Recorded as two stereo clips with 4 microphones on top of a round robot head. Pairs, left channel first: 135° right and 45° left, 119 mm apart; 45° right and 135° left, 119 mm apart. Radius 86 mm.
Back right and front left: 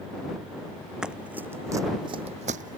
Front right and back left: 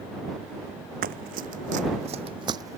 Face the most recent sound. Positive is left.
turn(degrees=65)